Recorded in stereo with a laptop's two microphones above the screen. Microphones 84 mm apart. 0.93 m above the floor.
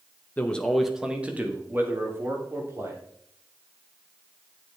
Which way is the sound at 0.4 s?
20° left (ahead or behind).